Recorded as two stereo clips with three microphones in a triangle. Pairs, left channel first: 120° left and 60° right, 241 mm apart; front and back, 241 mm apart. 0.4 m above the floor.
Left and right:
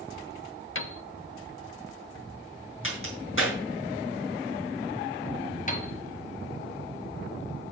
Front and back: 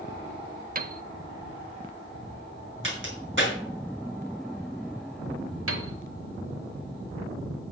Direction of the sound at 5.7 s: 175° left.